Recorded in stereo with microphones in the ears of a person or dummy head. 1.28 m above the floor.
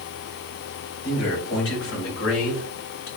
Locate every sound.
1.0 s a man speaking: 80° left, 2.5 m; by 3.1 s 70° left (ahead or behind), 2 m